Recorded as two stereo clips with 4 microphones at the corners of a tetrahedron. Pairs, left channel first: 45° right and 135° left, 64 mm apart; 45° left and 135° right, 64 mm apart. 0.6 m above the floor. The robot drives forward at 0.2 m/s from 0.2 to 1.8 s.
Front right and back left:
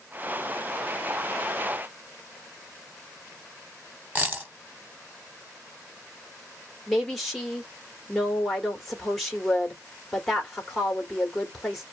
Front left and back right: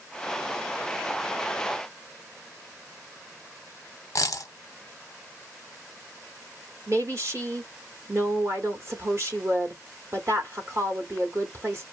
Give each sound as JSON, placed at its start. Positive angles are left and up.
{"t": 4.2, "sound": "a dropped coin", "azimuth_deg": 75, "distance_m": 0.6}
{"t": 6.9, "sound": "a woman speaking", "azimuth_deg": -130, "distance_m": 1.3}